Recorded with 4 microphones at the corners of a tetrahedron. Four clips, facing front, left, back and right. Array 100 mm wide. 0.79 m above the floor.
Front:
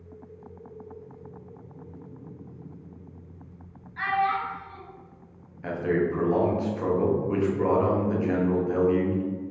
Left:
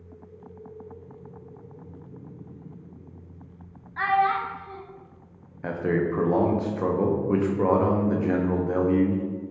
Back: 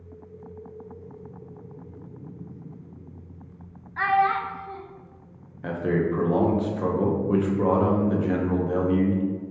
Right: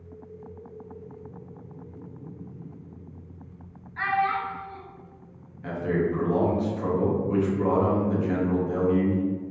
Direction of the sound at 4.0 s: 145° left.